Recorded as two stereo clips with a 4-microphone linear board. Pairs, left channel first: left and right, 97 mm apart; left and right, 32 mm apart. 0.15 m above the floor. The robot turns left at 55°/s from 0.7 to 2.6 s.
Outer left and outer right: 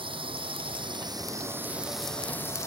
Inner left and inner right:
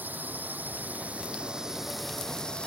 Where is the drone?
70° right (ahead or behind); by 2.7 s 30° left (ahead or behind).